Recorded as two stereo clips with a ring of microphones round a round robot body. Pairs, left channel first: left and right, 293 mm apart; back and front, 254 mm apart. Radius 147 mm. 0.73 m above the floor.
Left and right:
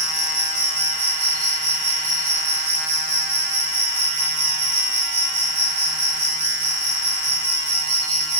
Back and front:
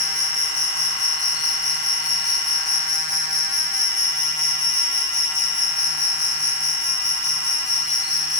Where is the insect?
125° right, 1.3 m.